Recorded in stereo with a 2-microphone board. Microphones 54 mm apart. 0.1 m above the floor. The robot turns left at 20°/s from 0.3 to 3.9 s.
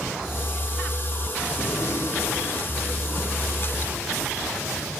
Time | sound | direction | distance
1.6 | a gunshot | 110° left | 4.5 m